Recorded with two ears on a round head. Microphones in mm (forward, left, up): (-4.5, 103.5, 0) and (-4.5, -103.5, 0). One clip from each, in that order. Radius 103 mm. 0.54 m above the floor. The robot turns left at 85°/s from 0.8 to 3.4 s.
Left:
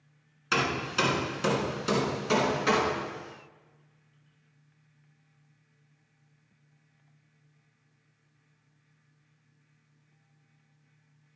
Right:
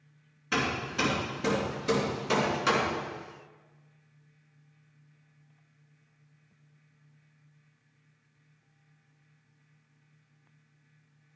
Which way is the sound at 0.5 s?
50° left (ahead or behind).